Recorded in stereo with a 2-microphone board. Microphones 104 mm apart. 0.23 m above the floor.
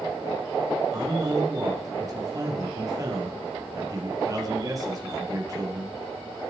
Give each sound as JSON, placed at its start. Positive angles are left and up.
{"t": 0.9, "sound": "a man speaking", "side_deg": -35, "distance_m": 5.0}